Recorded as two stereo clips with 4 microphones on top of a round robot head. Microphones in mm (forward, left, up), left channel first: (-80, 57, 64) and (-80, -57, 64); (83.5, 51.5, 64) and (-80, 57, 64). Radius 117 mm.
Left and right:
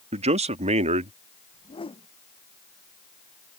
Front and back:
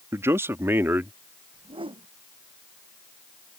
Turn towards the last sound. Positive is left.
turn(degrees=125)